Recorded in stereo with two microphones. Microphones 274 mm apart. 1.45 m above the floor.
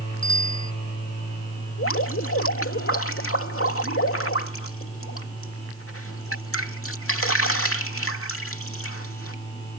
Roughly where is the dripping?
Left.